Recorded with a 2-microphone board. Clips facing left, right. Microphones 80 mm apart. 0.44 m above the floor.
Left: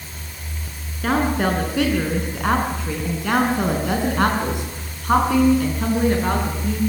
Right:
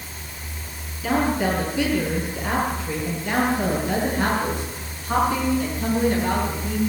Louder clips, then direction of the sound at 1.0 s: Left 2 dB; 60° left (ahead or behind).